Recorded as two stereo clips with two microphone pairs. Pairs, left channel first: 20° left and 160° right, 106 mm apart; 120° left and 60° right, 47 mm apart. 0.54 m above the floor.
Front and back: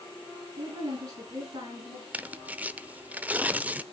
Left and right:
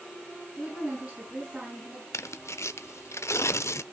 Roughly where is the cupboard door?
I don't hear a cupboard door.